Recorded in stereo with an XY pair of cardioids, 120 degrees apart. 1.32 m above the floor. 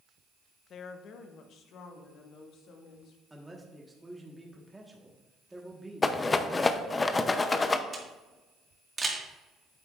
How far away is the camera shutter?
About 1.7 m.